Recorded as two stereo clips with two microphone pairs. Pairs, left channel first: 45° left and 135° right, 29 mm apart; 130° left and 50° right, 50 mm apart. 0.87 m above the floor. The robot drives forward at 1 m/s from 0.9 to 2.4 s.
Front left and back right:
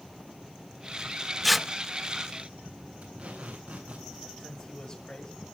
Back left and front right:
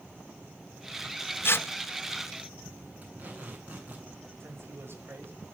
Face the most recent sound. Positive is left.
turn(degrees=-15)